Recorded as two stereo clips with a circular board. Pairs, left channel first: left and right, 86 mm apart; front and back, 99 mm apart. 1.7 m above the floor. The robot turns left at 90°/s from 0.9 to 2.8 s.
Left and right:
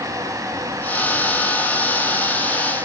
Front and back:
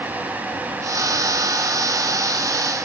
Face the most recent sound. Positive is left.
No sound to turn to.